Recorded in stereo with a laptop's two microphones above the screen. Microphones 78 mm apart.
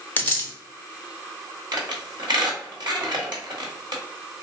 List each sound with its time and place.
0.2 s a dropped coin: 25° left (ahead or behind), 0.6 m
1.7 s a squeak: 65° right (ahead or behind), 1.1 m